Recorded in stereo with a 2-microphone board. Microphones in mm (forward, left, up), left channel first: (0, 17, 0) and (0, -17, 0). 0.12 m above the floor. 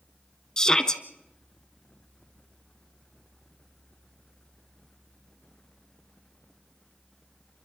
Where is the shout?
20° left (ahead or behind), 1.5 m.